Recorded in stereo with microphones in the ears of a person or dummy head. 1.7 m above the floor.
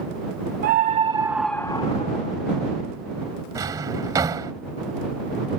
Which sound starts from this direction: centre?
A drawer, at 3.5 s.